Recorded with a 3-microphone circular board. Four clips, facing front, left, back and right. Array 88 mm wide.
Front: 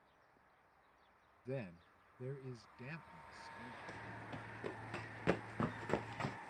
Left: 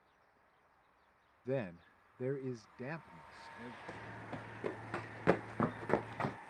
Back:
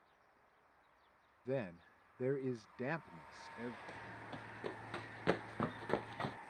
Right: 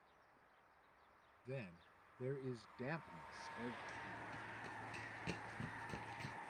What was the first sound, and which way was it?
A man speaking, 115° left.